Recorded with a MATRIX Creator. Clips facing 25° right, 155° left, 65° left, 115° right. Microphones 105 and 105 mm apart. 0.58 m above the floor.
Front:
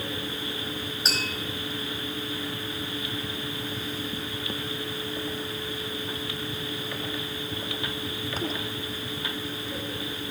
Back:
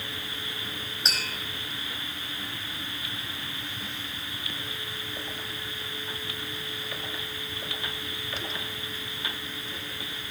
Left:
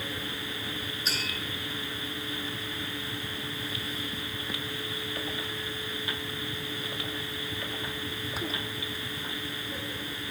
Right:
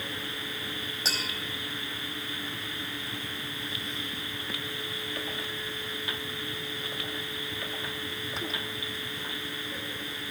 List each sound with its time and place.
1.1 s tapping: 110° right, 5 m